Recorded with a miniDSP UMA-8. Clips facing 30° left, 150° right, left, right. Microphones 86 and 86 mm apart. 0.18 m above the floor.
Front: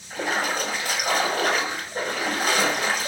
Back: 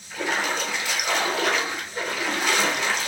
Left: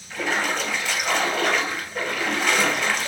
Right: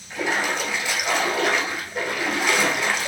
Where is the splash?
15° right, 1.8 m.